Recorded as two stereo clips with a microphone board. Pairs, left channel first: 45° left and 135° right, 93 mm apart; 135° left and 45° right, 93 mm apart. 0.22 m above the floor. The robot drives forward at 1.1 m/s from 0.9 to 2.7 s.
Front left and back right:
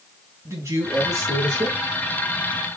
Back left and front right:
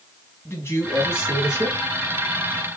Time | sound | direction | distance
0.5 | a man speaking | 175° right | 1.9 m